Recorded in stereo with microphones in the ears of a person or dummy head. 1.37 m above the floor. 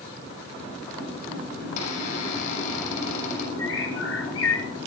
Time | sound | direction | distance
1.6 | a squeak | 50° left (ahead or behind) | 8 m
3.6 | a bird | 85° left | 3.5 m